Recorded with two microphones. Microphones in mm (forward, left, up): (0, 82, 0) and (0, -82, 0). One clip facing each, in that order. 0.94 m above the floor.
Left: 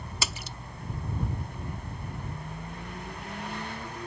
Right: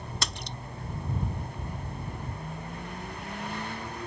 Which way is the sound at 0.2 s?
5° left (ahead or behind).